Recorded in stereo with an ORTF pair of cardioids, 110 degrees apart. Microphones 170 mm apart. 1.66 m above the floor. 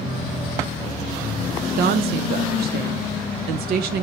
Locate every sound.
1.8 s a woman speaking: 70° right, 1.0 m